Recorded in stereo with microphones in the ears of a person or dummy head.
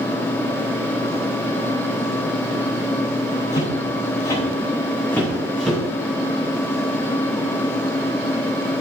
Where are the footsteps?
35° left (ahead or behind), 6 m; by 5.8 s 10° left (ahead or behind), 6.5 m.